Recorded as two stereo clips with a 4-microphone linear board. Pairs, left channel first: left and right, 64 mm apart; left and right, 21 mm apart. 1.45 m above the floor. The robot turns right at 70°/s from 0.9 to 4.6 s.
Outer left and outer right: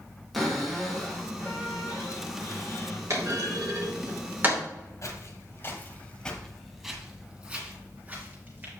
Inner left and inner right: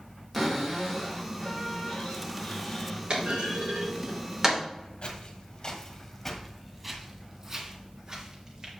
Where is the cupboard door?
Straight ahead, 2 m; by 3.0 s 150° left, 2 m.